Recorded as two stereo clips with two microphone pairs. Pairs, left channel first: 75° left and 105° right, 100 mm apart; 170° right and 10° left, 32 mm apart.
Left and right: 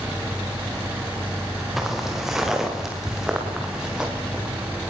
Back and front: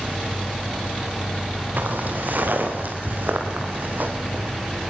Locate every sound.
1.8 s footsteps: 20° right, 6 m; by 4.5 s 25° right, 8.5 m